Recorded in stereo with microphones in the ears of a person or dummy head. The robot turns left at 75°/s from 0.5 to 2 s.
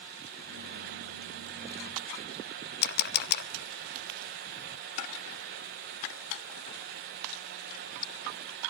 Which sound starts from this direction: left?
A camera shutter, at 2.8 s.